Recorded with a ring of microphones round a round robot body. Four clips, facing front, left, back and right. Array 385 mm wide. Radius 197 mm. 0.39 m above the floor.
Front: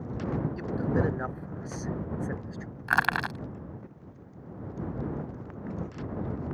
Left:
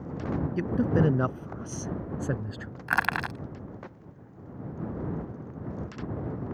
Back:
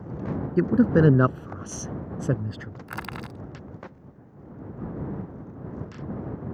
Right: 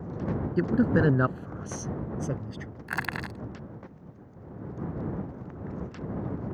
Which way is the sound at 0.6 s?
165° right.